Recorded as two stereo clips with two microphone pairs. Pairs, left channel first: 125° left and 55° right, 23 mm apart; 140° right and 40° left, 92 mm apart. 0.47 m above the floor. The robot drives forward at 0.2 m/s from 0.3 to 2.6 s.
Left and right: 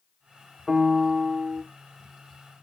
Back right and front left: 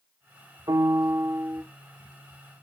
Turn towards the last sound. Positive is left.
turn(degrees=95)